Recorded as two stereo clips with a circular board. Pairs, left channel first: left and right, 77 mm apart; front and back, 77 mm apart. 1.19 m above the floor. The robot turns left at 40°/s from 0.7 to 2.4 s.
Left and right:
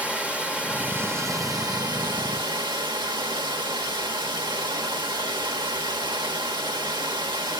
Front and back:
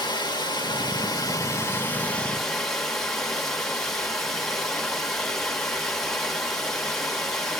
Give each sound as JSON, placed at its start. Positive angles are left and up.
{"t": 0.0, "sound": "running water", "azimuth_deg": -15, "distance_m": 1.5}